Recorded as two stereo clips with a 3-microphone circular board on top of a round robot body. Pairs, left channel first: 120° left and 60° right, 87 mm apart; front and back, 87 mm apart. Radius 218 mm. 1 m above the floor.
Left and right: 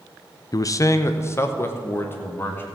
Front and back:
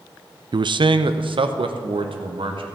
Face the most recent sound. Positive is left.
turn(degrees=-175)